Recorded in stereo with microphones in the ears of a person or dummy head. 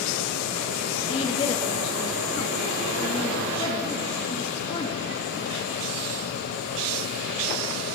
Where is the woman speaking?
25° left (ahead or behind), 2.5 m.